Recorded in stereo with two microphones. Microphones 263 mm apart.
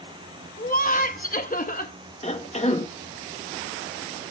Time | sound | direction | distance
0.6 | laughter | 30° left (ahead or behind) | 1.1 m
2.2 | a cough | 25° left (ahead or behind) | 1.0 m